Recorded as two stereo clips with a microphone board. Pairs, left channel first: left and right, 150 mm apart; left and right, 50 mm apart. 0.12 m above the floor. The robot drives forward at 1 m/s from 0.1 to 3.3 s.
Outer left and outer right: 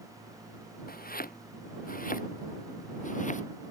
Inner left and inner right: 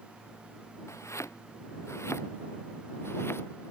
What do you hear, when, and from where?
0.9 s chopping: 75° left (ahead or behind); by 3.7 s 55° left (ahead or behind)